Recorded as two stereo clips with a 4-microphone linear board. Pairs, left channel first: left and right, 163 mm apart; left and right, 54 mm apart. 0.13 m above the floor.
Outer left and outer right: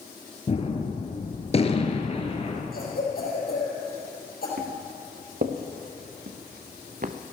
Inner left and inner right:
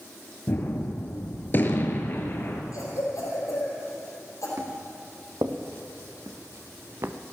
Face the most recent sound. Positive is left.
turn(degrees=-55)  # may be behind; listen again after turning